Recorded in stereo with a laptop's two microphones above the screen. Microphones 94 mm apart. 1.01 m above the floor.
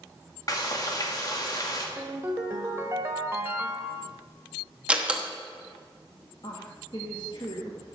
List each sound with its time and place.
0.5 s frying: 40° left (ahead or behind), 1.8 m
2.0 s a ringtone: 30° right (ahead or behind), 1.5 m
4.9 s a door slam: 10° right (ahead or behind), 0.9 m
6.4 s a woman speaking: 60° left (ahead or behind), 1.2 m